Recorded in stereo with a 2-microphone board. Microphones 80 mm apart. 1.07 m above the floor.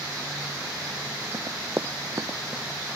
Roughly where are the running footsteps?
Right.